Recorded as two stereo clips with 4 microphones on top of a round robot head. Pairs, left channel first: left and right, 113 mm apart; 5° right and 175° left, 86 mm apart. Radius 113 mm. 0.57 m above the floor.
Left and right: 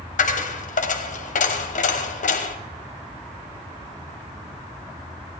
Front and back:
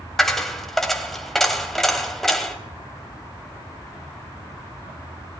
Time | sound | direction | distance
0.2 | a dropped coin | 85° left | 1.6 m